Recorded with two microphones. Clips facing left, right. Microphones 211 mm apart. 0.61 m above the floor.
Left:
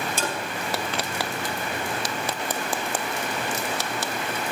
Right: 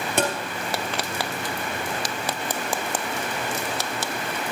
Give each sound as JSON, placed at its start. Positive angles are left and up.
{"t": 0.2, "sound": "tapping", "side_deg": -80, "distance_m": 3.0}